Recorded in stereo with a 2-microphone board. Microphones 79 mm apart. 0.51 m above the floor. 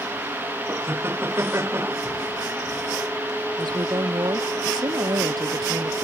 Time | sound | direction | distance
0.7 | laughter | 30° right (ahead or behind) | ?
3.6 | a woman speaking | 55° right (ahead or behind) | ?